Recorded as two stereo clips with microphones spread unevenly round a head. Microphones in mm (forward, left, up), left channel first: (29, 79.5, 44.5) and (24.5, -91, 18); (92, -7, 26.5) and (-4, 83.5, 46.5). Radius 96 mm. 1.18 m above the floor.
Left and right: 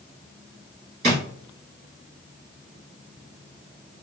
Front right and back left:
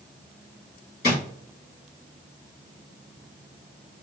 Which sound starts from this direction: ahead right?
A drawer, at 1.0 s.